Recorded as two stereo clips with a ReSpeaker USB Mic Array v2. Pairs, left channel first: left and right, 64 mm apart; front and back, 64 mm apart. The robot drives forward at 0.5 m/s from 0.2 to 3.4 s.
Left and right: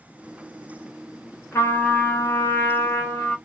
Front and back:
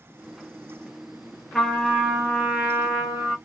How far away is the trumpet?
About 1.6 m.